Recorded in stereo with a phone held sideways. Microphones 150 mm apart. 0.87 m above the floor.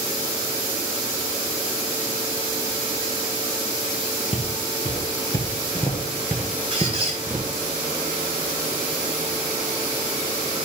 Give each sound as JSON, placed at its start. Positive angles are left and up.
{"t": 4.3, "sound": "footsteps", "side_deg": 45, "distance_m": 1.1}
{"t": 6.7, "sound": "a squeak", "side_deg": -40, "distance_m": 2.5}